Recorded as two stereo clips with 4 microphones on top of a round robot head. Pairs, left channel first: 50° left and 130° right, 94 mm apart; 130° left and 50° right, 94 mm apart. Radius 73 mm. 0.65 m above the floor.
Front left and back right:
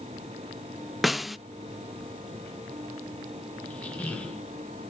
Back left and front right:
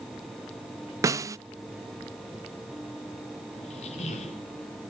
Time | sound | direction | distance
1.0 | a snare drum | 40° right | 0.6 m
3.6 | a squeak | 130° left | 2 m